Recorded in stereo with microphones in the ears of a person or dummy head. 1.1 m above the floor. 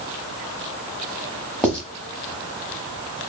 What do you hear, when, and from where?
1.6 s writing: 5° left (ahead or behind), 1.0 m